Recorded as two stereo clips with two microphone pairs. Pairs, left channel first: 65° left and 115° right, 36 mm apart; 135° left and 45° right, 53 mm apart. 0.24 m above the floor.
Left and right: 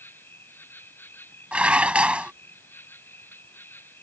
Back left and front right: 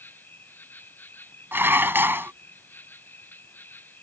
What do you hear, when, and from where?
0.0 s an insect: 85° left
1.5 s dishes clattering: 70° right